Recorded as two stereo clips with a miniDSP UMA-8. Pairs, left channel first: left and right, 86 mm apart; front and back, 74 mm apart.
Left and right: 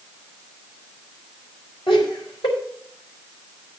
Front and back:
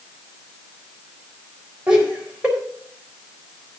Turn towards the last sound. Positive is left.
turn(degrees=105)